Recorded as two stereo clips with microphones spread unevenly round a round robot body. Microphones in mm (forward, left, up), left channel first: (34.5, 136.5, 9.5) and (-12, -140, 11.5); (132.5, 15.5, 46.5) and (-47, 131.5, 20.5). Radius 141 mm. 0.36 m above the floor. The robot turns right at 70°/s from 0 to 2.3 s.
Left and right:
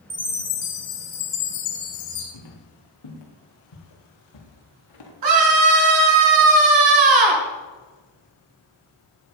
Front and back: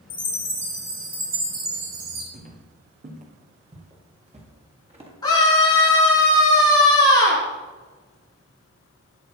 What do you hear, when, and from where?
0.1 s a chime: 10° right, 7 m; by 2.2 s 140° left, 7 m
2.3 s footsteps: 95° left, 5.5 m; by 5.1 s 85° left, 7 m
5.2 s a scream: 110° right, 6 m